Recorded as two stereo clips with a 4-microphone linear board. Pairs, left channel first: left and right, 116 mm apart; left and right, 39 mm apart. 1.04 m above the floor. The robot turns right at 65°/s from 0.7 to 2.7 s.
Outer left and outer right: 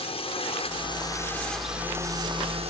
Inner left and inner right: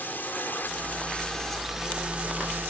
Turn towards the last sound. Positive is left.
turn(degrees=-110)